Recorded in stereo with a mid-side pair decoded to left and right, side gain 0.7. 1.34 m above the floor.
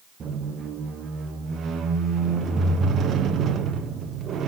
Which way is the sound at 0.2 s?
35° right.